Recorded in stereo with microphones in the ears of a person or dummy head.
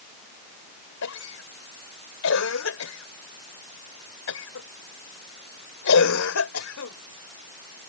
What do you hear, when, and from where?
1.0 s a cough: 80° left